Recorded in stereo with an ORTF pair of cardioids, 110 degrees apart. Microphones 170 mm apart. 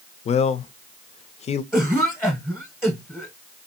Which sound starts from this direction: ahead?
A cough, at 1.7 s.